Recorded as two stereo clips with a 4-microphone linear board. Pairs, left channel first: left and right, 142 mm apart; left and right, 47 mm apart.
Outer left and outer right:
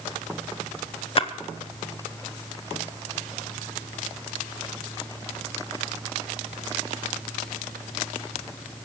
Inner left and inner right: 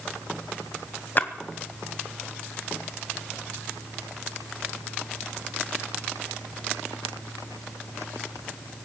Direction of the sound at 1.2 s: 40° left (ahead or behind).